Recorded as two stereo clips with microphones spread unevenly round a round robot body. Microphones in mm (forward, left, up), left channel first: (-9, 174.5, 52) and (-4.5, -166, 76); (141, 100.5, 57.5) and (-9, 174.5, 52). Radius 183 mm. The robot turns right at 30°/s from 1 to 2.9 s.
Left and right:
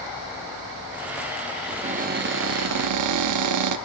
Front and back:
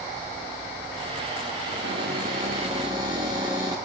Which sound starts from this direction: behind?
A cupboard door, at 1.7 s.